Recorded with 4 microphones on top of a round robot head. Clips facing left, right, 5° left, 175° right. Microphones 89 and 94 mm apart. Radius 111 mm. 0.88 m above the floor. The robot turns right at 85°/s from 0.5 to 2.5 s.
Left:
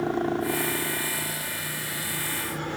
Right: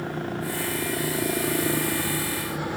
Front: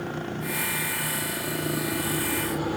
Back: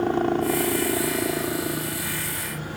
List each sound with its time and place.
0.0 s a helicopter: 150° left; by 2.8 s 5° right